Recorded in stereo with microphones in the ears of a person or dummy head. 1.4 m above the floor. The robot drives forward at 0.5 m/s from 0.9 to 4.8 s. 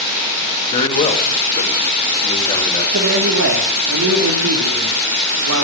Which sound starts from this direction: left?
A man speaking, at 0.7 s.